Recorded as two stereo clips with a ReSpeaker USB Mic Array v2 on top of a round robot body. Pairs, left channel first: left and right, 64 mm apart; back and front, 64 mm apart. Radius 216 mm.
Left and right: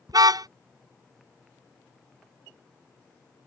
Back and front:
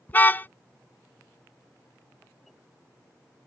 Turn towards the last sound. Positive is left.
turn(degrees=-115)